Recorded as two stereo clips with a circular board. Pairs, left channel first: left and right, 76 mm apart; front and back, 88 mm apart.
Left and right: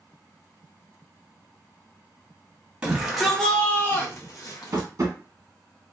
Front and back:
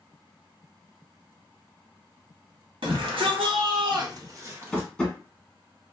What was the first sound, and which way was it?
A shout, 165° right.